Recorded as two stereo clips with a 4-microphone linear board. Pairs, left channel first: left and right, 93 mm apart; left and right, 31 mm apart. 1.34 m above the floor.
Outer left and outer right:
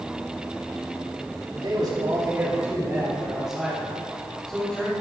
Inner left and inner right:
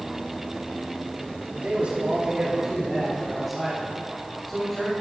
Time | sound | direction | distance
1.6 | a man speaking | 55° right (ahead or behind) | 3 m